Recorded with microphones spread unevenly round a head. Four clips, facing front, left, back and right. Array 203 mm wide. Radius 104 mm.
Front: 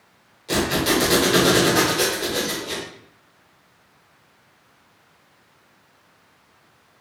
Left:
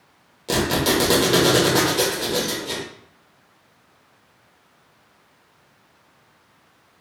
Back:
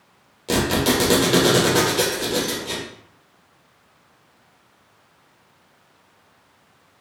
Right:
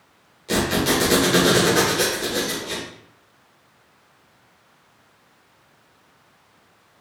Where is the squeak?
145° left, 1.3 m.